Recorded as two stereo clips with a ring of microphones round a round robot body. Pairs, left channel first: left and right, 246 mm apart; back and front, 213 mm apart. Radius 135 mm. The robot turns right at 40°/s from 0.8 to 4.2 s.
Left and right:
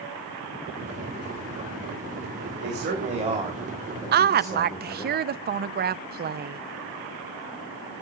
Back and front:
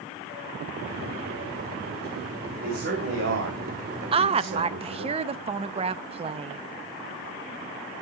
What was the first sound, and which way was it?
A man speaking, 50° right.